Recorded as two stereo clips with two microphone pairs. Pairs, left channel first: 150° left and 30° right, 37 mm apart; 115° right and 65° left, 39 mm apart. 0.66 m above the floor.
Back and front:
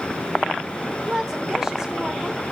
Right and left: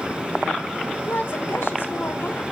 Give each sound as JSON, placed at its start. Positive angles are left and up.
{"t": 1.1, "sound": "a woman speaking", "azimuth_deg": -105, "distance_m": 1.7}